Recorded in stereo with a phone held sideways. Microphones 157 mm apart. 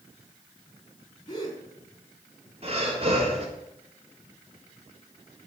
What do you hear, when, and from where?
1.3 s a gasp: 30° left (ahead or behind), 5 m
2.6 s breathing: 45° right (ahead or behind), 4 m